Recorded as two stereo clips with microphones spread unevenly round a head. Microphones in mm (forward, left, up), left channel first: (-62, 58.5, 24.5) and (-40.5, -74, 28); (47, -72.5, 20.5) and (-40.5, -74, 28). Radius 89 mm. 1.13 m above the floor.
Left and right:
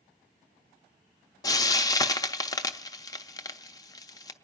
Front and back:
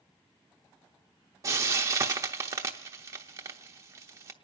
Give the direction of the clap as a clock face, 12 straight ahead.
No clap in this recording.